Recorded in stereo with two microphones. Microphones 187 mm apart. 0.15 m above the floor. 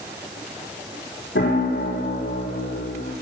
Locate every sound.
1.4 s a piano: 80° left, 7 m